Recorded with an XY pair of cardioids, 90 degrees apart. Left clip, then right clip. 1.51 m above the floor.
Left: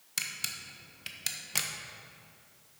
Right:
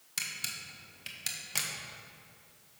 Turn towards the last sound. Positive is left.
turn(degrees=20)